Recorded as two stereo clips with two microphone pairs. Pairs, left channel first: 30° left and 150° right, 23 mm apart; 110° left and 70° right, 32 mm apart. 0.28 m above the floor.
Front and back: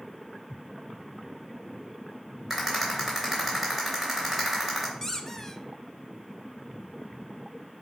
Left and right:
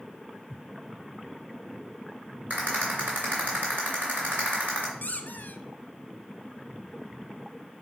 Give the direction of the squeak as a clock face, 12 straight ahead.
9 o'clock.